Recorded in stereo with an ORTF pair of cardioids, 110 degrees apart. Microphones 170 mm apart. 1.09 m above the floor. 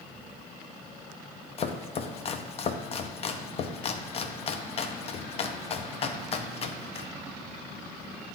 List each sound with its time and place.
1.6 s chopping: 40° left, 0.7 m